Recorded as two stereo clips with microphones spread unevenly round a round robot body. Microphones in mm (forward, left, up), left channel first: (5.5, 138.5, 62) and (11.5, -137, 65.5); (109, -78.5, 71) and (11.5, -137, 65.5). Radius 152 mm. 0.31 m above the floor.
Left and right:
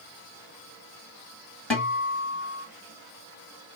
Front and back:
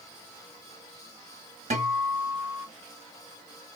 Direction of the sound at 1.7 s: Straight behind.